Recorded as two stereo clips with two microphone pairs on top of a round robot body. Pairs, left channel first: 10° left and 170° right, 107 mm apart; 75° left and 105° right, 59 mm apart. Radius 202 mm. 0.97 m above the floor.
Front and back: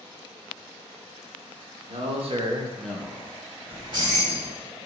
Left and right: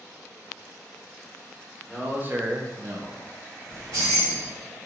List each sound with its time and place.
1.9 s a man speaking: straight behind, 1.2 m; by 3.4 s 40° right, 1.2 m
3.7 s keys jangling: 125° right, 1.2 m